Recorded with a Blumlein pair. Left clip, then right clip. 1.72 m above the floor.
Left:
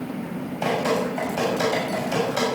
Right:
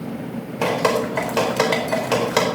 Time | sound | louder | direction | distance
0.6 | dripping | right 4 dB | 50° right | 4 m